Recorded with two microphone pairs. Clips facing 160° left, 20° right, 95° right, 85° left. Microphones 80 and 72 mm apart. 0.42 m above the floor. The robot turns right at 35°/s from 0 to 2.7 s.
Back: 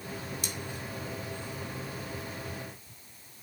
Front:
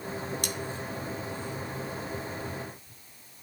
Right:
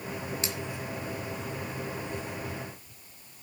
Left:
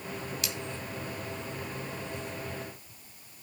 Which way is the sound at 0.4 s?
40° right.